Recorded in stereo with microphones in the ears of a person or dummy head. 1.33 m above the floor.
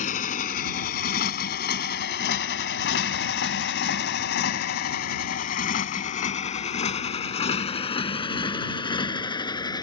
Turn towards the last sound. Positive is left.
turn(degrees=25)  # may be behind; listen again after turning